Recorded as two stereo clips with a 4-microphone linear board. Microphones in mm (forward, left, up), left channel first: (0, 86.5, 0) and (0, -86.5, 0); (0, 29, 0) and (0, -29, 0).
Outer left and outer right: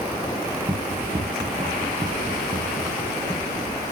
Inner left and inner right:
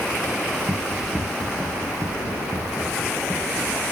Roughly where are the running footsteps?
Right.